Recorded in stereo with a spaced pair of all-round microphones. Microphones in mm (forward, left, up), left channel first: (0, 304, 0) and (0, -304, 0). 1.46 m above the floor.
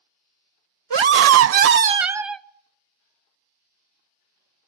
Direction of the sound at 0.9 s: 45° right (ahead or behind).